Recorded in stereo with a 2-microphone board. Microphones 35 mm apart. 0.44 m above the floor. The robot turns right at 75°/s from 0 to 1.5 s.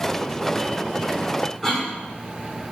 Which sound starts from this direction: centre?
A cough, at 1.6 s.